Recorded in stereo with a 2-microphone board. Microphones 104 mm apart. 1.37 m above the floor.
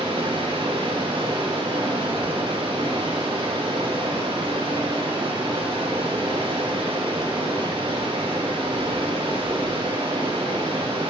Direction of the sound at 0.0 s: 60° right (ahead or behind).